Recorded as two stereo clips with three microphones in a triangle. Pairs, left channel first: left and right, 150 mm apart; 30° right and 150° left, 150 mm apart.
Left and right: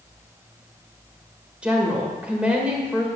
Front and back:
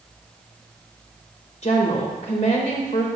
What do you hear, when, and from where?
1.6 s a woman speaking: 10° right, 1.9 m